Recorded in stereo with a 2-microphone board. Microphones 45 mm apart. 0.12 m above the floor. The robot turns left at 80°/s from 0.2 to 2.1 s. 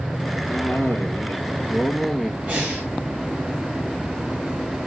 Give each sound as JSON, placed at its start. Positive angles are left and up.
{"t": 0.5, "sound": "a cough", "azimuth_deg": 120, "distance_m": 2.0}
{"t": 2.5, "sound": "breathing", "side_deg": -35, "distance_m": 5.5}